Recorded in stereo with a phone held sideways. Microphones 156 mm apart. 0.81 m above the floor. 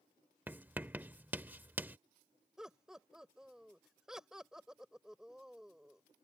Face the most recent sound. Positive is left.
turn(degrees=-5)  # may be behind; listen again after turning